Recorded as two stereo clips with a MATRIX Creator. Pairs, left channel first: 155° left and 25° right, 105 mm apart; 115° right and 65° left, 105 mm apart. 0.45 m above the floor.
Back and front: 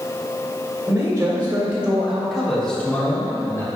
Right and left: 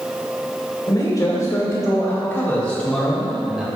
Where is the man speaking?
80° right, 1.8 m; by 3.7 s 135° left, 1.4 m.